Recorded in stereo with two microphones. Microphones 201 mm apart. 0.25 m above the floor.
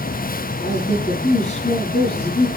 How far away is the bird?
I don't hear a bird.